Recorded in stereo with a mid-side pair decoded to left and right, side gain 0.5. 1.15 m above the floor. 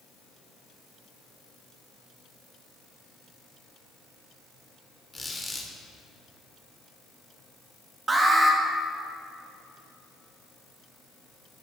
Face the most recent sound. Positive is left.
turn(degrees=-30)